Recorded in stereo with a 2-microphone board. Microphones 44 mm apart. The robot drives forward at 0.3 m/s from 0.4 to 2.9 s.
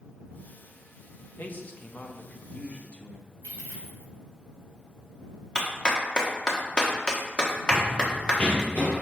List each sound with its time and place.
1.4 s a man speaking: 45° left (ahead or behind), 0.8 m; by 3.3 s 30° left (ahead or behind), 1.0 m
3.4 s a dropped coin: 70° left (ahead or behind), 3 m
5.5 s a clap: 20° left (ahead or behind), 1.2 m
7.7 s running footsteps: centre (ahead or behind), 1.1 m; by 9.0 s 45° left (ahead or behind), 1.6 m